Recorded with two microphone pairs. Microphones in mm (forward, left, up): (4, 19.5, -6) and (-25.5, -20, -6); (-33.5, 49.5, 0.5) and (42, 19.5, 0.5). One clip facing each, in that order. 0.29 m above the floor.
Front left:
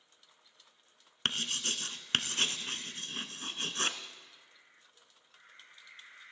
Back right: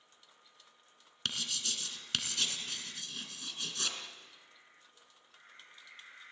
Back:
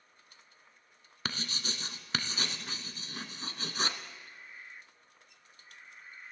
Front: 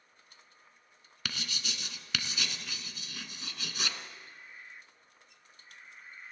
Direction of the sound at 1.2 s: 105° left.